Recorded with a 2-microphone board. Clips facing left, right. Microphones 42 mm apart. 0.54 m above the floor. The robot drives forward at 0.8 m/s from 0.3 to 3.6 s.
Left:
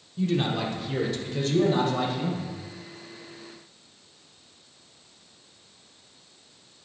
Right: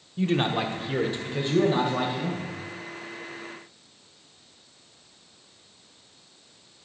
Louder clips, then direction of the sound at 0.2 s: Right 1 dB; 40° right (ahead or behind).